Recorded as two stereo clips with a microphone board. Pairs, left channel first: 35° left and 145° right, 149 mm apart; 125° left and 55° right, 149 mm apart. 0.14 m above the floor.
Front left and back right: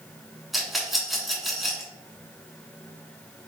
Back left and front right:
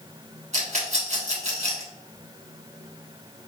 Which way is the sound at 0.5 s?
55° right.